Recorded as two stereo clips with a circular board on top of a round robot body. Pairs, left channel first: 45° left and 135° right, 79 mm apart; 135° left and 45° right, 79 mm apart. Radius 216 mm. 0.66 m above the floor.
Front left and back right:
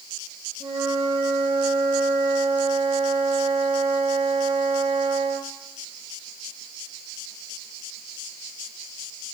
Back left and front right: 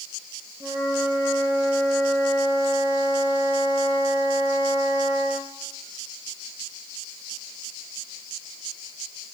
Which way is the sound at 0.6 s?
110° right.